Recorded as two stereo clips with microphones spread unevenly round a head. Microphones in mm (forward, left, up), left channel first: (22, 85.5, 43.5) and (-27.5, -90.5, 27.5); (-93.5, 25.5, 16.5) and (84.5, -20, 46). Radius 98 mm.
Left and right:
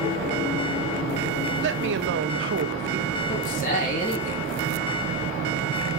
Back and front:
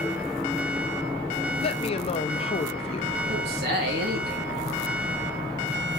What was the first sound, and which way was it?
A woman speaking, 135° right.